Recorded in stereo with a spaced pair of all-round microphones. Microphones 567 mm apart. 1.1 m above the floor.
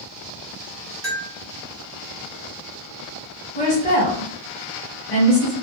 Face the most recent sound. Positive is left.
turn(degrees=55)  # may be behind; listen again after turning